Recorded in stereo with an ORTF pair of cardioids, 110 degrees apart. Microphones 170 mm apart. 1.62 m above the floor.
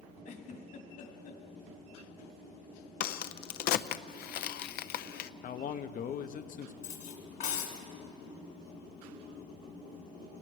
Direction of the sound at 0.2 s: 60° left.